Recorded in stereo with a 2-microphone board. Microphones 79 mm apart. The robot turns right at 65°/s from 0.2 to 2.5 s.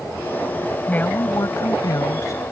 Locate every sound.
0.9 s a woman speaking: 20° left; by 2.4 s 120° left